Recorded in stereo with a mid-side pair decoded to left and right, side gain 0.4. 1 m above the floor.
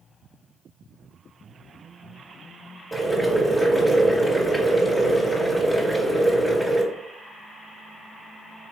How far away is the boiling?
About 1.5 m.